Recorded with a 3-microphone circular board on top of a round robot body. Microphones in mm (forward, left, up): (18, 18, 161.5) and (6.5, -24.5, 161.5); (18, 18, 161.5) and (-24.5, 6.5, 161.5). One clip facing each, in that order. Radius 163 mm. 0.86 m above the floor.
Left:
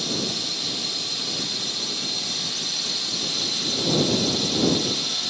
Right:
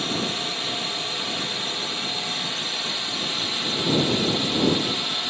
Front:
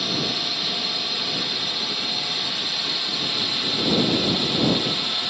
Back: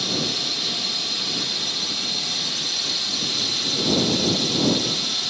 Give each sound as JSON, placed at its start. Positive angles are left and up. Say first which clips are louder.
{"t": 0.0, "sound": "a drone", "louder": "right 2 dB, even", "azimuth_deg": -60}